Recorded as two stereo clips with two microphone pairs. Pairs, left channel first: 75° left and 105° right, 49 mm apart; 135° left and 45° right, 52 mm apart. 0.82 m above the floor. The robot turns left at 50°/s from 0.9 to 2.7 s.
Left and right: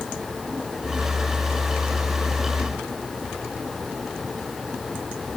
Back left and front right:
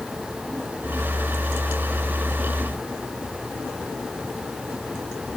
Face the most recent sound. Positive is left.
No sound to turn to.